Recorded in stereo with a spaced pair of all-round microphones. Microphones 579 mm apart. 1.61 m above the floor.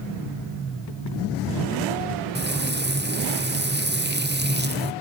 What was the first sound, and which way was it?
Frying, 20° right (ahead or behind).